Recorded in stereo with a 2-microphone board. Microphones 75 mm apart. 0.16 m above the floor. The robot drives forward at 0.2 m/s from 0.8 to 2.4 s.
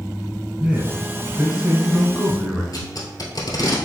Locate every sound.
0.6 s a man speaking: 10° right (ahead or behind), 1.1 m
2.7 s tape being pulled: 60° left (ahead or behind), 1.2 m